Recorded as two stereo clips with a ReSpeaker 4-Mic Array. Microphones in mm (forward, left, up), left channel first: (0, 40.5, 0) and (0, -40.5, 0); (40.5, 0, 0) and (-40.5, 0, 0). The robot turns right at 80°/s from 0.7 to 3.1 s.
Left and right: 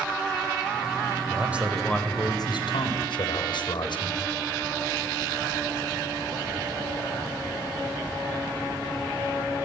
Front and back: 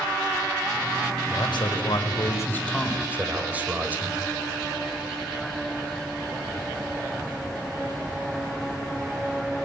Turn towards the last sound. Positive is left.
turn(degrees=110)